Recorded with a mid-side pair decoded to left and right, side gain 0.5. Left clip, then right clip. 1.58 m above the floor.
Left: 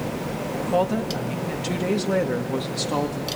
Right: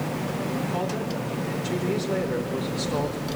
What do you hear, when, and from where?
0.6 s a woman speaking: 70° left, 2.5 m